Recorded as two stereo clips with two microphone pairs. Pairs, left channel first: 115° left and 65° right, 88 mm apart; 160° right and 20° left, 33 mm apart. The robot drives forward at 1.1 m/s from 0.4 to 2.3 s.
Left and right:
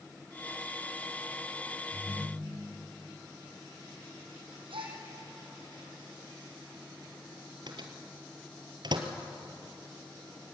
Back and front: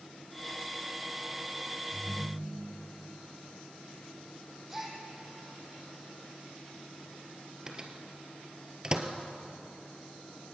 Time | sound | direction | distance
1.9 | a ringtone | 100° left | 8 m
4.7 | a gasp | 60° right | 4.5 m
7.7 | a microwave | 45° right | 2.0 m